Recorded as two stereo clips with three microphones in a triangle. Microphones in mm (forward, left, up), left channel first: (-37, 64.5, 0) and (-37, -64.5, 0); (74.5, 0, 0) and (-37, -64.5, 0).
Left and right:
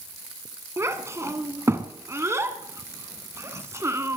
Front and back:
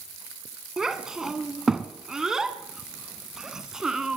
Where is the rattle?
I don't hear a rattle.